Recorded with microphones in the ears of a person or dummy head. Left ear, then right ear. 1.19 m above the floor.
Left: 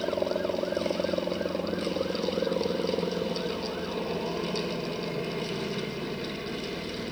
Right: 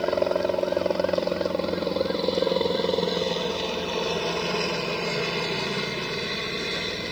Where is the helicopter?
60° right (ahead or behind).